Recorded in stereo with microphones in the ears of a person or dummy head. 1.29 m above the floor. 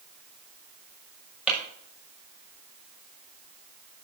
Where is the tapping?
5° right (ahead or behind), 6 m.